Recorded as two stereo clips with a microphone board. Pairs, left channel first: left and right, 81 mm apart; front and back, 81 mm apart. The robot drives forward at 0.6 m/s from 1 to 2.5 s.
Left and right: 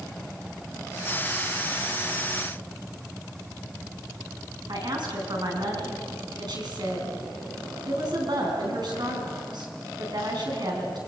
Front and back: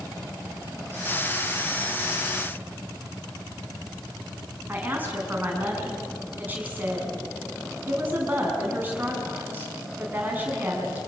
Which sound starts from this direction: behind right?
A woman speaking, at 4.7 s.